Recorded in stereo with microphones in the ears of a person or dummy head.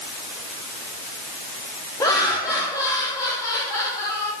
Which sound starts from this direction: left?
Laughter, at 2.0 s.